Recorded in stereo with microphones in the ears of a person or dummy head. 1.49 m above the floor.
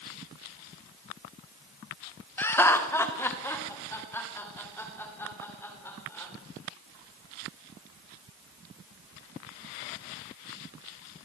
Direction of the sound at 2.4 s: 15° left (ahead or behind).